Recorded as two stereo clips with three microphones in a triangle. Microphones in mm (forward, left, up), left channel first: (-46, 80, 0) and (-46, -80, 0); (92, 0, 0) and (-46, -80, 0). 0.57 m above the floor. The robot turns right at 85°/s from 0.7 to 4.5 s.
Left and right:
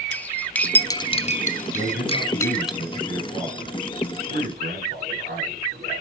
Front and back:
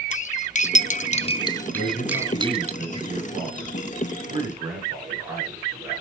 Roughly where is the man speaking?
Ahead left.